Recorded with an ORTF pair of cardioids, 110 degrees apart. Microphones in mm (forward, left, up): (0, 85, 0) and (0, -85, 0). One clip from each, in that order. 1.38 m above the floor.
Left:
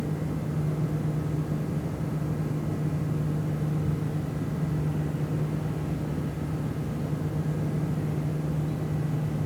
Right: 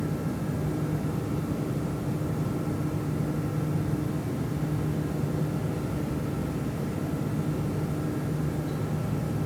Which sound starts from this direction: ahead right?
A fan, at 0.0 s.